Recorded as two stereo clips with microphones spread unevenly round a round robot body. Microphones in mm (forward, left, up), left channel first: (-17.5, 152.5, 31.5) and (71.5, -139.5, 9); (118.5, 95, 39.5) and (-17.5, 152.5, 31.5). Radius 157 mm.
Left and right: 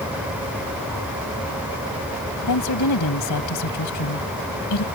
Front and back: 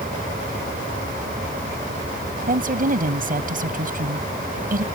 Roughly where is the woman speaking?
Behind left.